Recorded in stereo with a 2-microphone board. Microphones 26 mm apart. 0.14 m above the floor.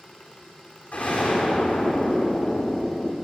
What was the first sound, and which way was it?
An explosion, 75° left (ahead or behind).